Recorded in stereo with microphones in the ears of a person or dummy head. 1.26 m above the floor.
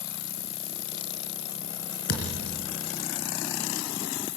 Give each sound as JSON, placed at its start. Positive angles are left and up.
{"t": 0.0, "sound": "an insect", "side_deg": 30, "distance_m": 7.0}
{"t": 2.1, "sound": "a thud", "side_deg": 50, "distance_m": 4.5}